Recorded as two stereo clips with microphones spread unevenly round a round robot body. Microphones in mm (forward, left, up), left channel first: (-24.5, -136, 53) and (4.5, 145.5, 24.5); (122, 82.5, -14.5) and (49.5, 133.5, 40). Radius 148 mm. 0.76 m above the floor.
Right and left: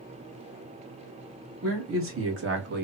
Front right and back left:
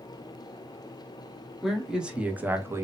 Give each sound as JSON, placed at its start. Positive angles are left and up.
{"t": 1.6, "sound": "a man speaking", "azimuth_deg": 45, "distance_m": 1.4}